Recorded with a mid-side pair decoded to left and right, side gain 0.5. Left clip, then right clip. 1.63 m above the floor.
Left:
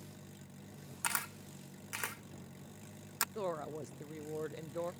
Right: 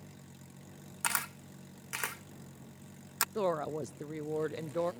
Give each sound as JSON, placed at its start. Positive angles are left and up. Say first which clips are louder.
{"t": 1.0, "sound": "a camera shutter", "louder": "right 3 dB", "azimuth_deg": -20}
{"t": 3.4, "sound": "a woman speaking", "louder": "right 7 dB", "azimuth_deg": -40}